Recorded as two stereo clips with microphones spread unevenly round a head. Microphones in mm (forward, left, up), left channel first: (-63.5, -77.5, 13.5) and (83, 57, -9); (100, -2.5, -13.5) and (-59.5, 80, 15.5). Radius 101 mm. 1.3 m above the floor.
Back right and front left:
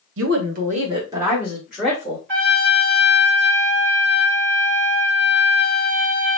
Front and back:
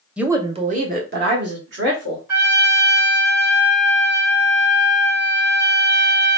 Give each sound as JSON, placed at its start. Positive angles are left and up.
{"t": 0.2, "sound": "a woman speaking", "azimuth_deg": 65, "distance_m": 0.7}
{"t": 2.3, "sound": "a trumpet", "azimuth_deg": 90, "distance_m": 1.7}